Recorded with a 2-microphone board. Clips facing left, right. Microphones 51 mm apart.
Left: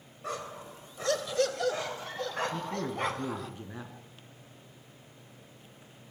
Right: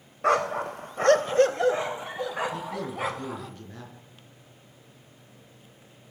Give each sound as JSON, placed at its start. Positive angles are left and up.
{"t": 0.2, "sound": "a dog barking", "side_deg": -75, "distance_m": 0.6}
{"t": 2.5, "sound": "a man speaking", "side_deg": 20, "distance_m": 4.0}